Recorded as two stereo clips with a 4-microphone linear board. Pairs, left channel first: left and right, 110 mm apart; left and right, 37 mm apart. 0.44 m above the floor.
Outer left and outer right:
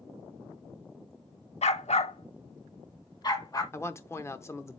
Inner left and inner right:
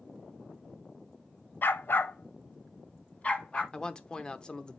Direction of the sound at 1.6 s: 75° left (ahead or behind).